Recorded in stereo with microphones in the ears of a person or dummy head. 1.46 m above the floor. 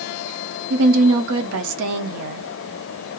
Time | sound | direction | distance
0.7 | a woman speaking | 70° right (ahead or behind) | 0.7 m